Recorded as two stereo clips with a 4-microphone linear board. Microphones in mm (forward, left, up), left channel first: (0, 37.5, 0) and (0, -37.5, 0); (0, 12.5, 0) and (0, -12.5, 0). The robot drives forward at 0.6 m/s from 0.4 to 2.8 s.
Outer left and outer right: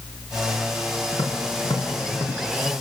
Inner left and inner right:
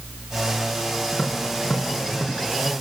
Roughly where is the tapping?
Left.